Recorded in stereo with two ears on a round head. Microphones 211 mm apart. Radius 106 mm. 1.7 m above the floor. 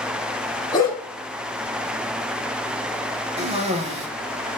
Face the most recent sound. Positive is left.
turn(degrees=-25)  # may be behind; listen again after turning